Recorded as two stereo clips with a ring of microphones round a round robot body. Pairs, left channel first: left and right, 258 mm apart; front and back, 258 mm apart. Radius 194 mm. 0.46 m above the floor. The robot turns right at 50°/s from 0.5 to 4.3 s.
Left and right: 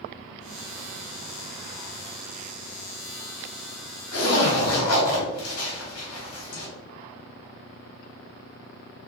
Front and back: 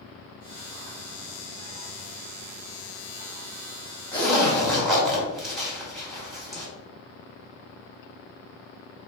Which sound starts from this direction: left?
A zipper, at 4.1 s.